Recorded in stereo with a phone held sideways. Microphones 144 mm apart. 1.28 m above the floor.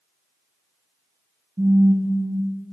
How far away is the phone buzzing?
About 0.7 m.